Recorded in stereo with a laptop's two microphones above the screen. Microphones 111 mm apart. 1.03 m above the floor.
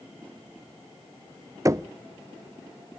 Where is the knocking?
30° right (ahead or behind), 0.6 m.